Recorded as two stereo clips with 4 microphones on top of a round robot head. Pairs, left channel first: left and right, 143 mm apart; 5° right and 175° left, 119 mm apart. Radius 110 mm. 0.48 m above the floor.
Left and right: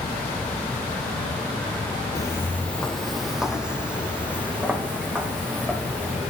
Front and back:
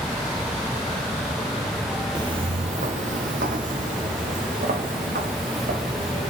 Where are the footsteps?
140° left, 0.5 m; by 6.3 s 165° right, 2.5 m.